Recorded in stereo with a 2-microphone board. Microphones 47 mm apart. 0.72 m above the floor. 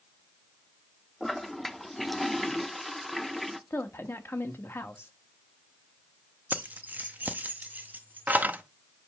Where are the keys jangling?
40° right (ahead or behind), 0.5 m.